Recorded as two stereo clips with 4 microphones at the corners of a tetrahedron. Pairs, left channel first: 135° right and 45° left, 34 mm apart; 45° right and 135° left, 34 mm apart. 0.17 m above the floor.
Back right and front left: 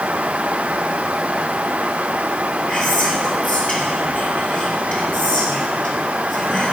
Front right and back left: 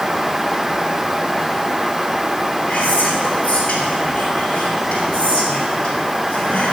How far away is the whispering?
About 2.5 m.